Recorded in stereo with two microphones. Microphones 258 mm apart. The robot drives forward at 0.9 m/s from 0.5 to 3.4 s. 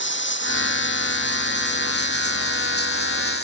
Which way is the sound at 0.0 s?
45° left (ahead or behind).